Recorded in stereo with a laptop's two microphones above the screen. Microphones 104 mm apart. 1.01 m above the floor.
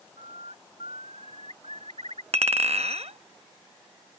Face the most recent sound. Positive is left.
turn(degrees=-90)